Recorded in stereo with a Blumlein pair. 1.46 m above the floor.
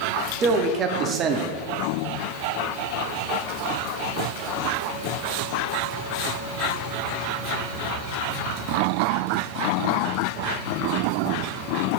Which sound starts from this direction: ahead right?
A man speaking, at 0.4 s.